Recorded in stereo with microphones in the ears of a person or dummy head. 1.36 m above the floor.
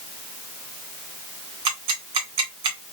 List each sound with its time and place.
1.6 s ticking: 30° right (ahead or behind), 1.2 m